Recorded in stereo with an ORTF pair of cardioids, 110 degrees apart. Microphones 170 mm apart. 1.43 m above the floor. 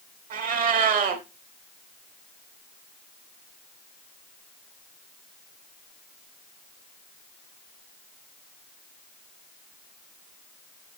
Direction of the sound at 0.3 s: 60° right.